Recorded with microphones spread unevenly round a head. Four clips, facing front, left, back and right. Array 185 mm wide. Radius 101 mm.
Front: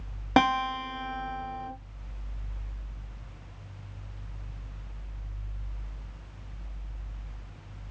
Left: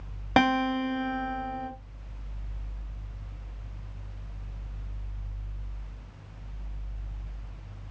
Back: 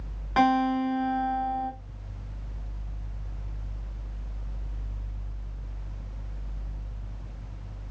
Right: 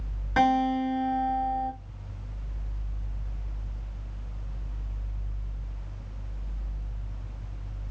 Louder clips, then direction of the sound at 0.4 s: Right 1 dB, back 2 dB; 60° left.